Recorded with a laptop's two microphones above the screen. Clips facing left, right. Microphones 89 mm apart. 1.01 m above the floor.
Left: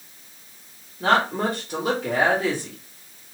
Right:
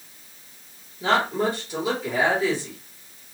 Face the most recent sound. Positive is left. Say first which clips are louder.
# left 1 dB
turn(degrees=60)  # may be behind; listen again after turning